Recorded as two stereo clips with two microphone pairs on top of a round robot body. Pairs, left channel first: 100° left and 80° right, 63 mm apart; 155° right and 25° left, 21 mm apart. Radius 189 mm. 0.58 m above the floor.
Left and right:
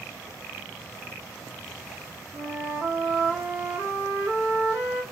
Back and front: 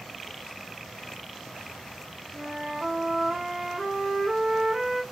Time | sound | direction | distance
2.3 | a flute | 30° right | 2.0 m